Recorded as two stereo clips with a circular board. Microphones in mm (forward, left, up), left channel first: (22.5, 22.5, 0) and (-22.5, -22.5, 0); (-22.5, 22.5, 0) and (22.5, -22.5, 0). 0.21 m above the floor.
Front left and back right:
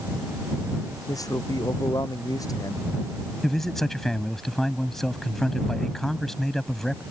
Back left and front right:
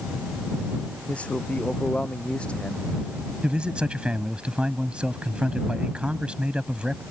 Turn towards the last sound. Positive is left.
turn(degrees=-25)